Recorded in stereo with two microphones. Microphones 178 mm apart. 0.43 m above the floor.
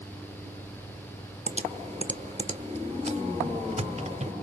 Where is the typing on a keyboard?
40° right (ahead or behind), 1.0 m.